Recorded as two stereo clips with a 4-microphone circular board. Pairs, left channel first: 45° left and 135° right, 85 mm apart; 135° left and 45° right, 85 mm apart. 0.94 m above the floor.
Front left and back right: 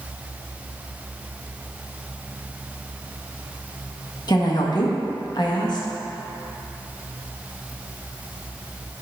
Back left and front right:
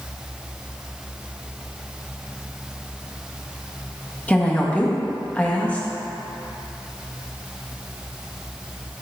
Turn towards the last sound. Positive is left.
turn(degrees=65)